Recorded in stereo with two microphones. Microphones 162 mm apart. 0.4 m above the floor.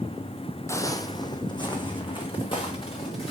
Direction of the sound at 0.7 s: 20° left (ahead or behind).